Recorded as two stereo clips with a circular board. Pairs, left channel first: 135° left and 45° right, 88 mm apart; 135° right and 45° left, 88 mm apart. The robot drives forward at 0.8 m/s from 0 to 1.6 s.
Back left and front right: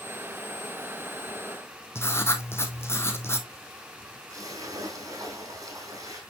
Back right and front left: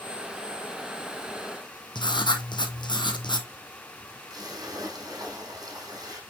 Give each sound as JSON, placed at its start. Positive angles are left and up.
{"t": 1.9, "sound": "writing", "azimuth_deg": -165, "distance_m": 1.2}
{"t": 4.3, "sound": "a splash", "azimuth_deg": 0, "distance_m": 4.0}